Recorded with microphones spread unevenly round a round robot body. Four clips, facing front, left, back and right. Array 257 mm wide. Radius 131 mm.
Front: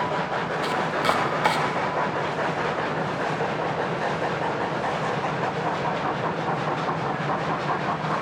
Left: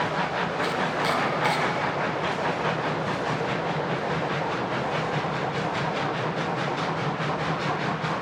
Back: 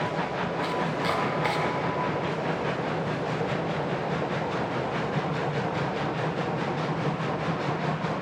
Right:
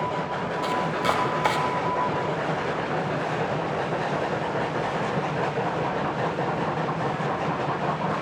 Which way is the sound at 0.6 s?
45° right.